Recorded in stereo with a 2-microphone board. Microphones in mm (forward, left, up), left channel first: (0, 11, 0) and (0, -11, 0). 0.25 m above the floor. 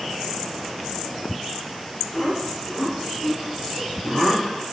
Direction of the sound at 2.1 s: 15° left (ahead or behind).